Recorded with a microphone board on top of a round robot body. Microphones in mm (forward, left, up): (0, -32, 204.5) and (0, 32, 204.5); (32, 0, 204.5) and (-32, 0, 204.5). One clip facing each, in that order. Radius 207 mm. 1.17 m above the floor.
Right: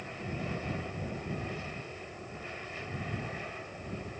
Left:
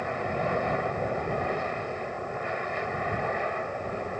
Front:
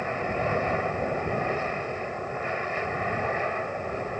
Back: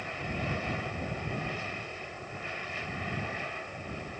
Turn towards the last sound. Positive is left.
turn(degrees=50)